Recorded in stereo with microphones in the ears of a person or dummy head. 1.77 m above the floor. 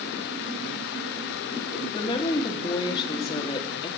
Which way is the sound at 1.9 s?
30° left (ahead or behind).